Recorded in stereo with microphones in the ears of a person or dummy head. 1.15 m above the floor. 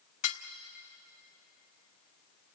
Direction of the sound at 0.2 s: 40° left (ahead or behind).